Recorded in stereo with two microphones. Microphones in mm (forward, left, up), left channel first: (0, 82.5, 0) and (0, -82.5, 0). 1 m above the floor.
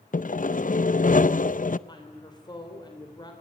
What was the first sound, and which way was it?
Sawing, 55° left (ahead or behind).